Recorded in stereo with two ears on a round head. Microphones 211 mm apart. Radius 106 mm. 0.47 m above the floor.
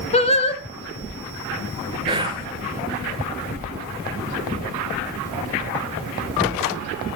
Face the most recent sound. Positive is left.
turn(degrees=-20)  # may be behind; listen again after turning